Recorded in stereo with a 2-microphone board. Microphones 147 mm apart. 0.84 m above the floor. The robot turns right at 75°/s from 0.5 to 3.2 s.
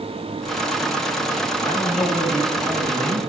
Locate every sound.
1.6 s a man speaking: 145° left, 9.5 m; by 3.2 s 95° right, 9.5 m